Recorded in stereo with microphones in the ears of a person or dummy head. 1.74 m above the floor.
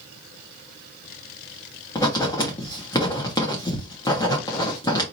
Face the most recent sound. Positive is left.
turn(degrees=20)  # may be behind; listen again after turning